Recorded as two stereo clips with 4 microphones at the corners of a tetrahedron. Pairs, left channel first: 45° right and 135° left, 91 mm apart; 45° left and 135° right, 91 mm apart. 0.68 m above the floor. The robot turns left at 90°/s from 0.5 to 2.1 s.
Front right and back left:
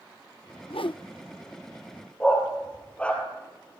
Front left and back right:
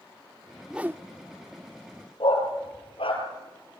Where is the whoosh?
50° right, 0.5 m; by 1.0 s 80° right, 0.5 m.